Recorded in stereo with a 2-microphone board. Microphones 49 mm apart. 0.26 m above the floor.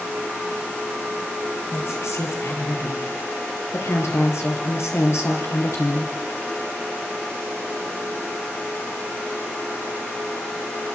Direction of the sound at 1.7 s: 65° left (ahead or behind).